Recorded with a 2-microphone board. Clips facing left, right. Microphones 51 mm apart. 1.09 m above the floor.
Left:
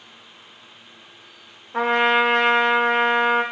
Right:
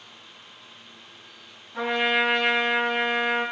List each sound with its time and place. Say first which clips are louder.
1.7 s a trumpet: left 5 dB; 60° left (ahead or behind), 0.7 m